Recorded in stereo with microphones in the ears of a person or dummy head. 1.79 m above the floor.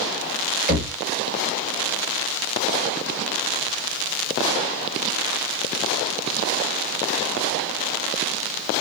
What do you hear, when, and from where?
0.7 s knocking: 40° right (ahead or behind), 2.5 m